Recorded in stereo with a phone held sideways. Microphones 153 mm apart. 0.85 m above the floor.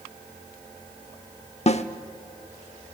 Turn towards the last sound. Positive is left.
turn(degrees=45)  # may be behind; listen again after turning